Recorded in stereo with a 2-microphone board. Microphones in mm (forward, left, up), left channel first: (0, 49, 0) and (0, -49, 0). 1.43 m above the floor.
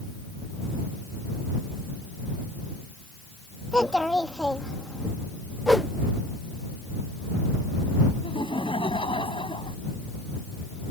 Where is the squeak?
No squeak in this recording.